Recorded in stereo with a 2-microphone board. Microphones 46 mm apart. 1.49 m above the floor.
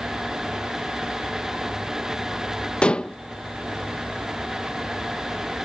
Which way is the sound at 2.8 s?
20° left (ahead or behind).